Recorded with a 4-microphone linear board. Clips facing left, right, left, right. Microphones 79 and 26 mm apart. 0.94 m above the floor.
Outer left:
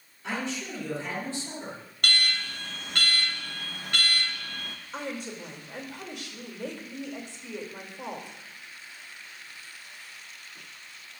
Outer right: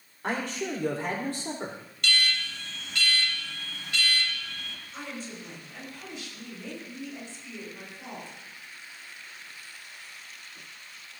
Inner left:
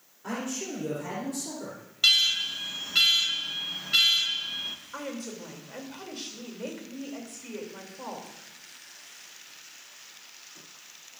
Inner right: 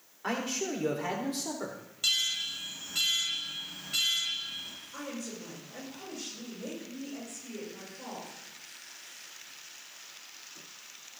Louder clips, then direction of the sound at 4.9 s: Outer left 4 dB, inner left 3 dB; 70° left (ahead or behind).